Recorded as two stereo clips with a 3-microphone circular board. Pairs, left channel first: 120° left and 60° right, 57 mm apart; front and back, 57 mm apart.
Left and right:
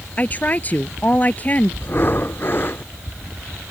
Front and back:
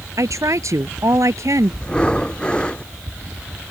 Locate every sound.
0.2 s a woman speaking: straight behind
1.8 s breathing: 70° left